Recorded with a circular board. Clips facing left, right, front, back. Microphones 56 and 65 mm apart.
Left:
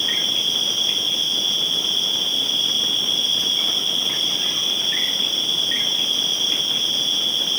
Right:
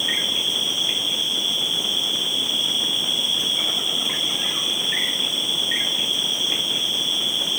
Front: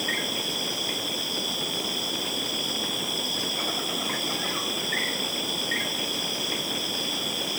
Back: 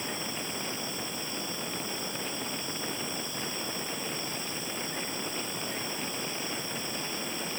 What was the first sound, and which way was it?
An insect, 15° right.